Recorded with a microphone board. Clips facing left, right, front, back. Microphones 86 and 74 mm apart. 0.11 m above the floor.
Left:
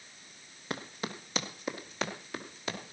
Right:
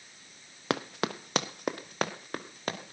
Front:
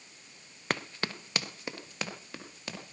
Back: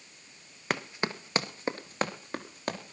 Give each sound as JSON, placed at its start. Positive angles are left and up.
{"t": 0.7, "sound": "running footsteps", "azimuth_deg": -95, "distance_m": 0.8}